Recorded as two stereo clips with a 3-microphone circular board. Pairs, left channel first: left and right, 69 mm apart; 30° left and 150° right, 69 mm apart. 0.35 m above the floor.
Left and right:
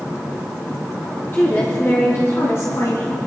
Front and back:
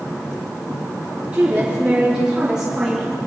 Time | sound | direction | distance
1.3 | a woman speaking | 145° left | 4.5 m